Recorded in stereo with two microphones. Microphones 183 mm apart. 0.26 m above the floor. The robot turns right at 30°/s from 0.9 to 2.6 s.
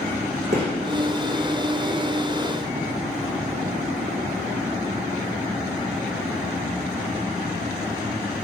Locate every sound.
0.5 s a gunshot: 70° right (ahead or behind), 1.0 m